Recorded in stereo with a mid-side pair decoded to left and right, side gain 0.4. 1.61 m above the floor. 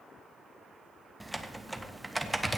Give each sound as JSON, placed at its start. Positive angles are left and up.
{"t": 1.2, "sound": "typing on a keyboard", "azimuth_deg": -10, "distance_m": 1.1}